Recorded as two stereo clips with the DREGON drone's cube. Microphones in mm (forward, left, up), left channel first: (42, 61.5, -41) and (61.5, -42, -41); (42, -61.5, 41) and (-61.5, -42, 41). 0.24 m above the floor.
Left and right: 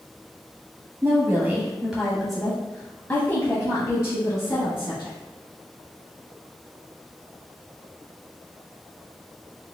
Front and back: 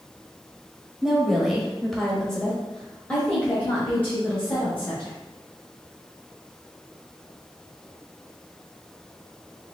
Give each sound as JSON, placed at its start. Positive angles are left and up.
{"t": 1.0, "sound": "a woman speaking", "azimuth_deg": -110, "distance_m": 1.2}